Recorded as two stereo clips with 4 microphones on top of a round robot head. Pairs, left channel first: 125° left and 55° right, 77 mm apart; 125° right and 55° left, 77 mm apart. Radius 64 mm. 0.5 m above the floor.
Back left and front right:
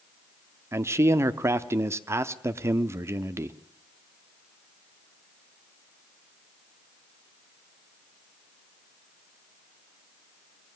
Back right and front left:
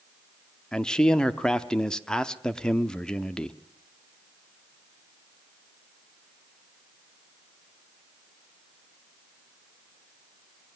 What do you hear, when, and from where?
0.7 s a man speaking: 50° right, 0.8 m